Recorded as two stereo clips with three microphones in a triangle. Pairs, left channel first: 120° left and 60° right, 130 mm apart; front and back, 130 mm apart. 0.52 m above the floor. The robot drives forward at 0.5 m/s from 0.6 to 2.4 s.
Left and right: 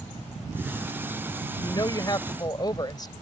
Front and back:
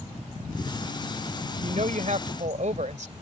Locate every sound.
1.6 s a woman speaking: 175° left